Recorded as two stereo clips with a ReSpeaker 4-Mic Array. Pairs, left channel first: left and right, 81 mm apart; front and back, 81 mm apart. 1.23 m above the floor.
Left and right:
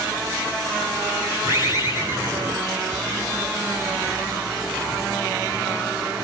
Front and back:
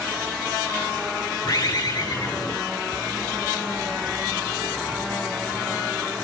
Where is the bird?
30° right, 5 m.